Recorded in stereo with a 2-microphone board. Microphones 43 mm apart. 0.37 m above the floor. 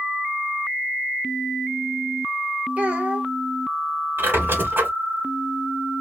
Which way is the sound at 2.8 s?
30° right (ahead or behind).